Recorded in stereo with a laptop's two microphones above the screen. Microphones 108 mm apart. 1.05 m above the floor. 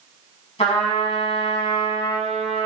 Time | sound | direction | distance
0.6 | a trumpet | 70° left (ahead or behind) | 3.5 m